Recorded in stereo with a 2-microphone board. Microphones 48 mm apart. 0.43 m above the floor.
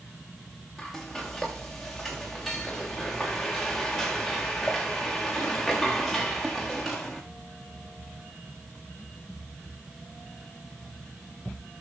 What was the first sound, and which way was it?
Frying, centre (ahead or behind).